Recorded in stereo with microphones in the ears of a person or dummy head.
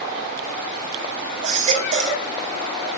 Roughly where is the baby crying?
Right.